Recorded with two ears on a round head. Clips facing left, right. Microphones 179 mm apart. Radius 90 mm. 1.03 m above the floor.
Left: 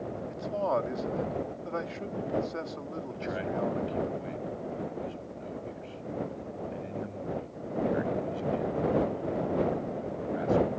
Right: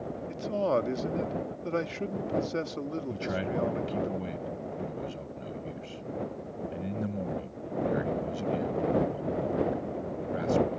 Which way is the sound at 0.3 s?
35° right (ahead or behind).